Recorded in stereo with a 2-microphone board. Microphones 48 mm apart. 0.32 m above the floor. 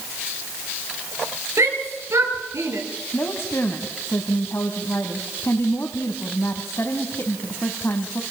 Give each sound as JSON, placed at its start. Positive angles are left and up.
{"t": 1.6, "sound": "a shout", "side_deg": -75, "distance_m": 7.0}
{"t": 3.1, "sound": "a woman speaking", "side_deg": 60, "distance_m": 2.5}